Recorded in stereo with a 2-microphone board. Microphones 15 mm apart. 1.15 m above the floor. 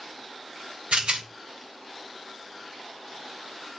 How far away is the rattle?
About 0.6 m.